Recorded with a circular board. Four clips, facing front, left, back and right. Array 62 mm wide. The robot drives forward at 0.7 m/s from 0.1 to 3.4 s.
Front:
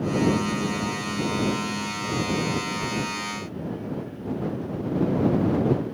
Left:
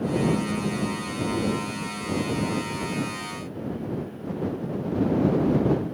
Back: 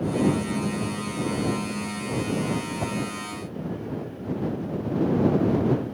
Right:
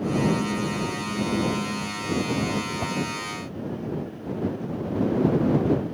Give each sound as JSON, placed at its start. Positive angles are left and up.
{"t": 2.8, "sound": "a whoosh", "azimuth_deg": -150}